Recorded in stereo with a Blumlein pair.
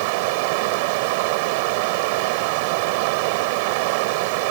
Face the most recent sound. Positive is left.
turn(degrees=-45)